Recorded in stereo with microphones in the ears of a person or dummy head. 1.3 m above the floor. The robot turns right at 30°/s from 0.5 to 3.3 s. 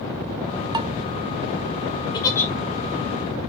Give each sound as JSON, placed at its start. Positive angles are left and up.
{"t": 0.7, "sound": "dishes clattering", "side_deg": -15, "distance_m": 0.6}
{"t": 2.1, "sound": "a giggle", "side_deg": 20, "distance_m": 1.3}